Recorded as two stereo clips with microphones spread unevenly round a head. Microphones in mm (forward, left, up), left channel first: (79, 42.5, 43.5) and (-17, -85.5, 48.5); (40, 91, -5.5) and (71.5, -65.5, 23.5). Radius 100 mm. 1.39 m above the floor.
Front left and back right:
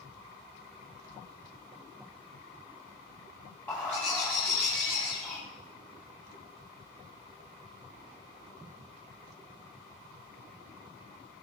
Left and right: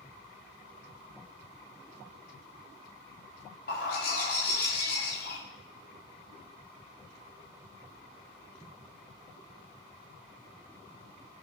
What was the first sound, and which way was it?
A bird, 135° left.